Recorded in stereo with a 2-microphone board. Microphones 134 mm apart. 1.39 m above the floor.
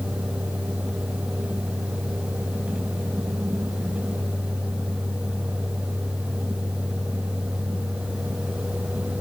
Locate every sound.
Only background noise.